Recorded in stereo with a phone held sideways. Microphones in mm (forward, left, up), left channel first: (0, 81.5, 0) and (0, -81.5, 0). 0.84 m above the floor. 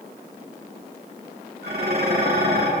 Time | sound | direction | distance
1.6 | dishes clattering | 75° right (ahead or behind) | 8.5 m